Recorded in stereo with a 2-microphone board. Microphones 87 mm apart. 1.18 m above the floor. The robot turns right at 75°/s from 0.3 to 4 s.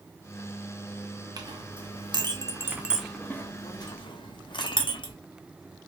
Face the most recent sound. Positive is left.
turn(degrees=60)  # may be behind; listen again after turning